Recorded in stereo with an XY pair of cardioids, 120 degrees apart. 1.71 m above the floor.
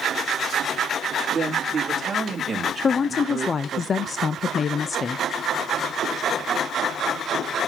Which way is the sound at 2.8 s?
35° left.